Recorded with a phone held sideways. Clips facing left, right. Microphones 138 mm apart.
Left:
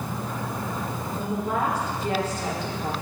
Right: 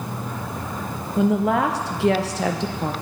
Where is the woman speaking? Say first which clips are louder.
Right 9 dB; 80° right, 0.6 m.